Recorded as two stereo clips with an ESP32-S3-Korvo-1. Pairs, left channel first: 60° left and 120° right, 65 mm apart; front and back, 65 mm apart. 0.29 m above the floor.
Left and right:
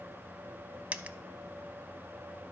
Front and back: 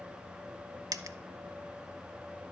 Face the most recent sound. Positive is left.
turn(degrees=175)